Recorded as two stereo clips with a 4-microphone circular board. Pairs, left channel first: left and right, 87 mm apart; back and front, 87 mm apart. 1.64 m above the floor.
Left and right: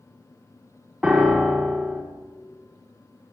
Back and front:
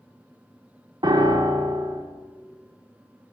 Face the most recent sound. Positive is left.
turn(degrees=-10)